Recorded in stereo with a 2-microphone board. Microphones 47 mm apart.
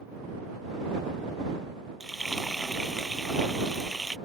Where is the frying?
5° left (ahead or behind).